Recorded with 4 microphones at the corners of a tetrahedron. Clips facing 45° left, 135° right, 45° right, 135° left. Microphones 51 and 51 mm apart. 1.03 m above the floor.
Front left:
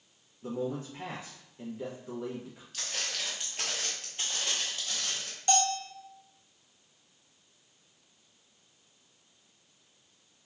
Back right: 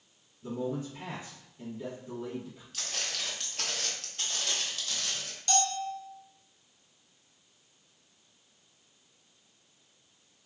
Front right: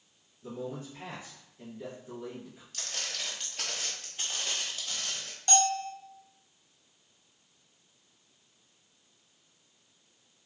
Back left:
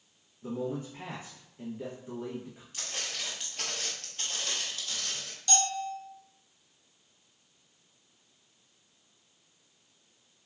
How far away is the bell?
About 0.6 m.